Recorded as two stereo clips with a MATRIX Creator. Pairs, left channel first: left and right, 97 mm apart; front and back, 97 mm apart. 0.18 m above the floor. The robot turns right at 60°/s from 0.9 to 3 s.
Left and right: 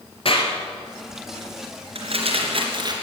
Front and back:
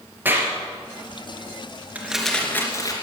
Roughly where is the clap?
Left.